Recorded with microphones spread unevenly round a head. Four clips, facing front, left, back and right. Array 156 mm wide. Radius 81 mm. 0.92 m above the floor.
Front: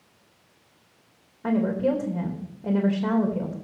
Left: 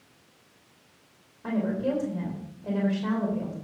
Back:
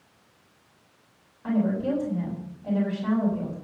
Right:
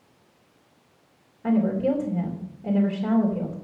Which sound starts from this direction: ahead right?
A woman speaking, at 1.4 s.